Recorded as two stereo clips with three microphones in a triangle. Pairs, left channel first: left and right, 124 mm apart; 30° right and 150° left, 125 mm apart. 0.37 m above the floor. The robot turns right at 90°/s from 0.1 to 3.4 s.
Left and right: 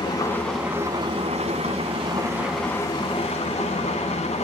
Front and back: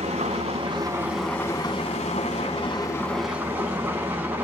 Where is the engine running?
140° left, 2 m; by 4.5 s 75° left, 2 m.